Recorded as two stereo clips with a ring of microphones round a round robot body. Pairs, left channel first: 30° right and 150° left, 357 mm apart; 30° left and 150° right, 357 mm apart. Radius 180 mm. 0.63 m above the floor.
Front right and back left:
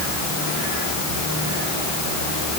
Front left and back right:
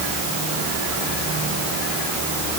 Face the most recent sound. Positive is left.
No sound to turn to.